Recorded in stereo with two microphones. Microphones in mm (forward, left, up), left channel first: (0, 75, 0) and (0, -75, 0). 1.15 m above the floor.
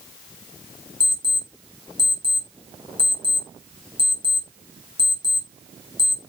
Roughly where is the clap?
I don't hear a clap.